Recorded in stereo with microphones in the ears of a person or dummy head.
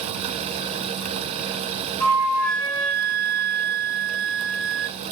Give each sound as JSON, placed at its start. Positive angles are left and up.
{"t": 2.0, "sound": "a flute", "side_deg": 15, "distance_m": 2.0}